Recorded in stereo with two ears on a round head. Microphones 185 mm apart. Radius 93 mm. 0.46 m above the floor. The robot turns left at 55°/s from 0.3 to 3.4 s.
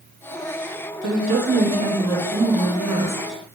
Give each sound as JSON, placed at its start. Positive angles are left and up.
{"t": 1.0, "sound": "a woman speaking", "azimuth_deg": -65, "distance_m": 1.8}